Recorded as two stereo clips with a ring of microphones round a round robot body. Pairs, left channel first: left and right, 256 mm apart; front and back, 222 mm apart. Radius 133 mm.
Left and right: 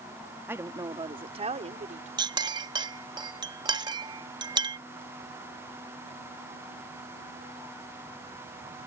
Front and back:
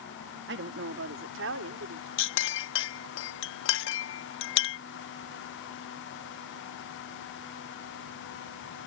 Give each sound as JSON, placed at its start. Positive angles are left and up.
{"t": 0.5, "sound": "a woman speaking", "azimuth_deg": -170}
{"t": 2.2, "sound": "a clink", "azimuth_deg": -20}